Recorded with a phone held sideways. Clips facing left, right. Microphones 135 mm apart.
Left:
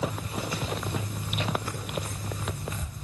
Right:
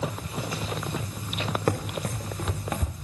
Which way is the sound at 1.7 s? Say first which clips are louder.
Right 7 dB; 75° right (ahead or behind).